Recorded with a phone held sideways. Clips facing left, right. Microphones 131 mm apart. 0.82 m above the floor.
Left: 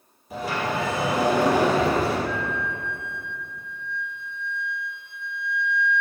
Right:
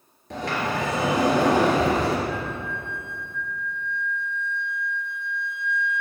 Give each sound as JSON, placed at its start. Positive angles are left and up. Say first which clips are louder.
{"t": 0.3, "sound": "a sliding door", "louder": "even", "side_deg": -70, "distance_m": 3.0}
{"t": 2.3, "sound": "a flute", "louder": "left 1 dB", "side_deg": -40, "distance_m": 0.7}